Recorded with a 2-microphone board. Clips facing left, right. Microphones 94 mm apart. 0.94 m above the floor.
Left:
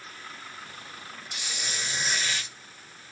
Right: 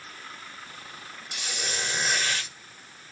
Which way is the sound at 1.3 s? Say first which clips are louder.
Right 3 dB; 65° right (ahead or behind).